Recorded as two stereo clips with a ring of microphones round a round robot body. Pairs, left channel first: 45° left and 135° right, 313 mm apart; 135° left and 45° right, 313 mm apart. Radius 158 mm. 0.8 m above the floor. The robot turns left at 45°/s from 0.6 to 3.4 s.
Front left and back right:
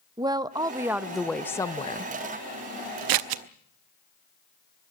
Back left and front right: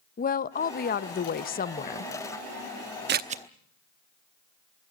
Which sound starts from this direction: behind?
A woman speaking, at 0.2 s.